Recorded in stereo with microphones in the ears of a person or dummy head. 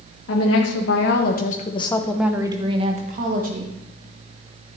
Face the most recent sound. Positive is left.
turn(degrees=-55)  # may be behind; listen again after turning